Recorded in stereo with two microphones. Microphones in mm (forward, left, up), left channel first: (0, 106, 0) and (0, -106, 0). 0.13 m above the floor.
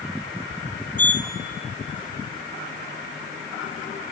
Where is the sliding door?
40° left (ahead or behind), 1.6 m.